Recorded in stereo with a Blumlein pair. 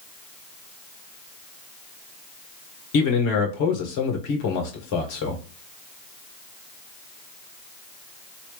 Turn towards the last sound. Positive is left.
turn(degrees=45)